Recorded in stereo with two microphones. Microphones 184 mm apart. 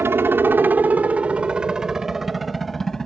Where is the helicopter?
15° right (ahead or behind); by 3.1 s 5° left (ahead or behind).